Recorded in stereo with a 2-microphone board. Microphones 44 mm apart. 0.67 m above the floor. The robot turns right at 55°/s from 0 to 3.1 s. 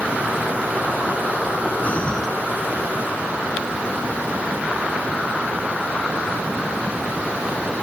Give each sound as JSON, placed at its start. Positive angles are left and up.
{"t": 1.8, "sound": "breathing", "side_deg": 35}